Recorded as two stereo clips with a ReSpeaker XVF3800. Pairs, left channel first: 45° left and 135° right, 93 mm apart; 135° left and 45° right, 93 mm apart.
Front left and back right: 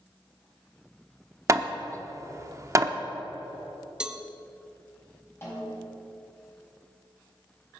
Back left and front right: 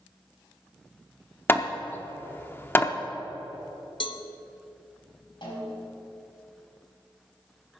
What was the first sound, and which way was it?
Hammering, 170° right.